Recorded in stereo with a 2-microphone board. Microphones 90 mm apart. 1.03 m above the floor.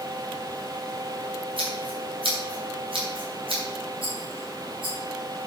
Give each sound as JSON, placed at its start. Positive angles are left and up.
{"t": 1.6, "sound": "scissors", "side_deg": -70, "distance_m": 5.0}
{"t": 4.0, "sound": "a rattle", "side_deg": -70, "distance_m": 4.5}